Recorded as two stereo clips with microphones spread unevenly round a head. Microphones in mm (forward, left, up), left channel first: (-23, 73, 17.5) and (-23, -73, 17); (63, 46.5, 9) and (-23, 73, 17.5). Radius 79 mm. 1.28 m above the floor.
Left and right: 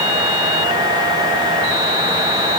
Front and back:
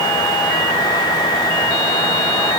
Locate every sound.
Only background noise.